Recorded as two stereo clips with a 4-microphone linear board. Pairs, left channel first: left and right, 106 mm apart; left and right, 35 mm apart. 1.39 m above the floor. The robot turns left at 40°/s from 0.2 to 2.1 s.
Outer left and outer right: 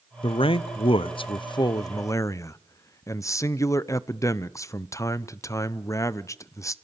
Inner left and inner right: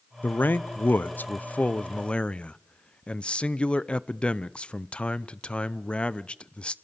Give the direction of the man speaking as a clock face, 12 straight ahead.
8 o'clock.